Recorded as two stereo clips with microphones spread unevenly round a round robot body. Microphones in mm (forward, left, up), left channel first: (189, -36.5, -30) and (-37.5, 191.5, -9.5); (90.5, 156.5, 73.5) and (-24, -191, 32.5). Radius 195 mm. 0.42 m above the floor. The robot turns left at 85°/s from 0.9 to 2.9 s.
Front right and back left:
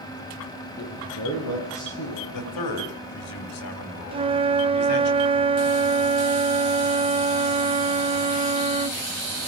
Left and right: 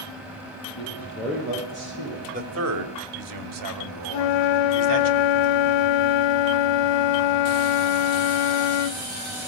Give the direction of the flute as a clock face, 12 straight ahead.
10 o'clock.